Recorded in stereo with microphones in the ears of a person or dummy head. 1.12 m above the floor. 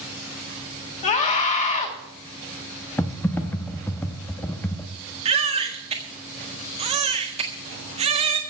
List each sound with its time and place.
1.0 s a scream: 35° left (ahead or behind), 3 m
3.0 s typing on a keyboard: 5° left (ahead or behind), 0.6 m
5.2 s a baby crying: 35° right (ahead or behind), 1.7 m